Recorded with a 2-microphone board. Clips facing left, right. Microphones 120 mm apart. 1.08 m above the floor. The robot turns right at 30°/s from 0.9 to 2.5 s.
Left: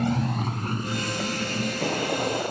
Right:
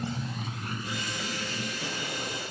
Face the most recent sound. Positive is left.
turn(degrees=70)  # may be behind; listen again after turning